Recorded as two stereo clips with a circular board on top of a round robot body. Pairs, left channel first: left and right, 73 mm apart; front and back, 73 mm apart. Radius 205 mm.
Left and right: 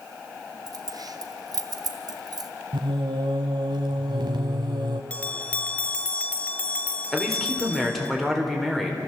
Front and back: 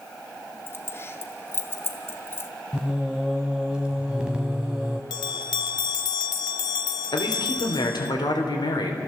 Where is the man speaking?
5° left, 3.5 m.